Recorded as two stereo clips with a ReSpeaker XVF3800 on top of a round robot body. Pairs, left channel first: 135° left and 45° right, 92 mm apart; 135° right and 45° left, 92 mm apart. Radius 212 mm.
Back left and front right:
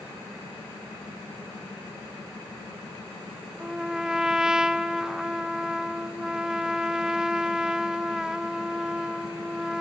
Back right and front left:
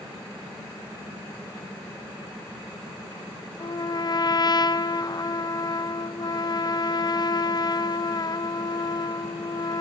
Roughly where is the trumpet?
Behind right.